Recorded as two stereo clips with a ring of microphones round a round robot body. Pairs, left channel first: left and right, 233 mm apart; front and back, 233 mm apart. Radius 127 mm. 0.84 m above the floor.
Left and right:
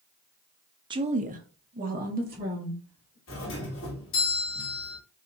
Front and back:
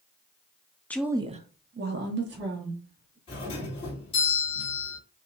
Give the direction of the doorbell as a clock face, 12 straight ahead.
10 o'clock.